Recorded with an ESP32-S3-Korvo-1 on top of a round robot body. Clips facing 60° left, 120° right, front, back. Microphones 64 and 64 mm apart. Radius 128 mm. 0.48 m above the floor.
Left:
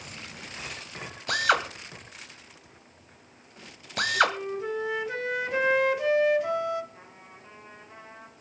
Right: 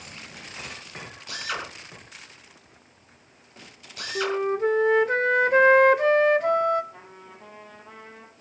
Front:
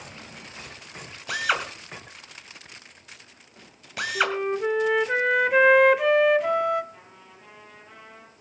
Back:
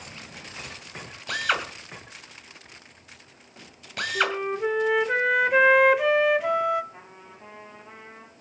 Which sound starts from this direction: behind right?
A trumpet, at 6.9 s.